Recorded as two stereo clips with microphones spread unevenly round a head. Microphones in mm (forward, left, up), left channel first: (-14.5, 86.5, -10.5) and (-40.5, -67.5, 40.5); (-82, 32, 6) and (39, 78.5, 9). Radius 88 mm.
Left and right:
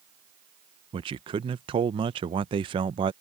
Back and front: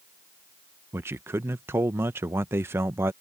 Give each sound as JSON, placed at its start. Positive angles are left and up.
{"t": 0.9, "sound": "a man speaking", "azimuth_deg": -40}